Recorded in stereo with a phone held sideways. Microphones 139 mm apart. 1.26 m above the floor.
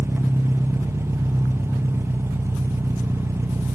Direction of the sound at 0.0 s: 20° right (ahead or behind).